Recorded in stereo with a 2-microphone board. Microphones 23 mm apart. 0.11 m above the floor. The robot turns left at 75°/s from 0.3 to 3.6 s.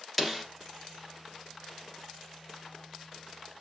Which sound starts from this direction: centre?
A snare drum, at 0.2 s.